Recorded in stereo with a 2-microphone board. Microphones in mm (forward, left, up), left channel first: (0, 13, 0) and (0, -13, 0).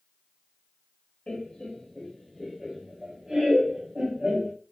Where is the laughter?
35° left (ahead or behind), 1.1 m; by 4.5 s 50° right (ahead or behind), 1.6 m.